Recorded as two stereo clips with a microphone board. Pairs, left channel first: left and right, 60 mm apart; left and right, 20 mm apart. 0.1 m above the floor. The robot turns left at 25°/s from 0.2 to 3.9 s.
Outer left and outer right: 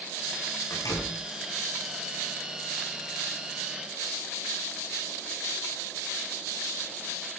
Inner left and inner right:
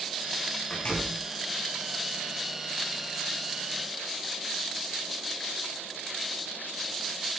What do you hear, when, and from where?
0.7 s a door slam: 75° left (ahead or behind), 7.5 m; by 1.2 s 65° left (ahead or behind), 7.5 m